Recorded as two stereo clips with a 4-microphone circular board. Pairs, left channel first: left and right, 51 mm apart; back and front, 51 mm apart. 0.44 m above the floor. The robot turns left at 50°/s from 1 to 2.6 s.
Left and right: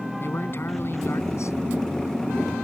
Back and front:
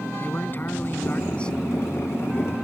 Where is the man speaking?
130° left; by 1.6 s 100° left.